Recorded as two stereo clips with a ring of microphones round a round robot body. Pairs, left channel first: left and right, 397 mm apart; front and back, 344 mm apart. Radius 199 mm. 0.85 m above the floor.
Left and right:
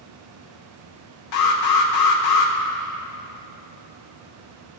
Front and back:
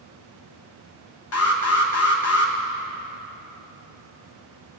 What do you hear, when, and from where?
1.3 s an alarm: 50° left, 0.9 m